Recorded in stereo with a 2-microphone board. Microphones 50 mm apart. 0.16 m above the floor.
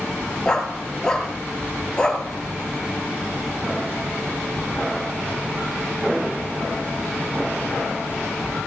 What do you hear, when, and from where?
0.5 s a dog barking: 15° left (ahead or behind), 1.4 m